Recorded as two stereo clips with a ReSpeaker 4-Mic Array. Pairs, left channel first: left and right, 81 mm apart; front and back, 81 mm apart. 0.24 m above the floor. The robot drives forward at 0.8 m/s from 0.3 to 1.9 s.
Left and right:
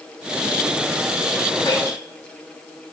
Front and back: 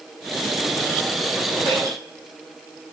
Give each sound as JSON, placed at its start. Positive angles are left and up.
{"t": 1.6, "sound": "dripping", "azimuth_deg": 145, "distance_m": 4.5}